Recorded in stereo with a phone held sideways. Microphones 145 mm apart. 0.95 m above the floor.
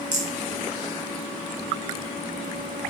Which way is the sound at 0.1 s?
60° right (ahead or behind).